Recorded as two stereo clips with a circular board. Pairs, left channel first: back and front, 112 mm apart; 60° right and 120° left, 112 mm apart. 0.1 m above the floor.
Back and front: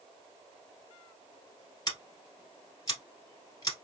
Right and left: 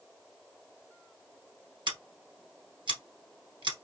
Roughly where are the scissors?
Behind left.